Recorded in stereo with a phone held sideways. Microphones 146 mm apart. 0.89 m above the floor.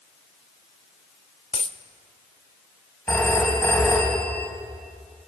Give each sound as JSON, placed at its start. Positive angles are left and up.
{"t": 1.5, "sound": "a dropped coin", "side_deg": 45, "distance_m": 0.9}
{"t": 3.1, "sound": "a phone ringing", "side_deg": 15, "distance_m": 5.0}